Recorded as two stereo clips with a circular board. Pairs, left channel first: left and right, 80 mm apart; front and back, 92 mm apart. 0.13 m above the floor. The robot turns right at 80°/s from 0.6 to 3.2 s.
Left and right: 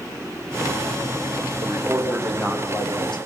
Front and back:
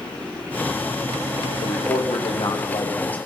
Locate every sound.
1.6 s a man speaking: 50° right, 6 m; by 3.2 s 75° left, 6 m